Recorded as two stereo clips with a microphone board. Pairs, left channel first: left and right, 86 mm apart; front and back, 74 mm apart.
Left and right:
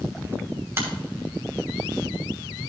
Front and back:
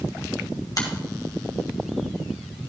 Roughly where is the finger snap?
Ahead right.